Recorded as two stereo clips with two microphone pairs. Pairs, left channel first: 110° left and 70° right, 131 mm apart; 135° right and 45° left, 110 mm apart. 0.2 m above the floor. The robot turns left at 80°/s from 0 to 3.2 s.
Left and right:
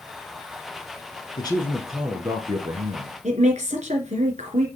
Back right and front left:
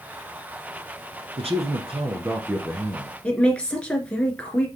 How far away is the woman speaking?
About 3 m.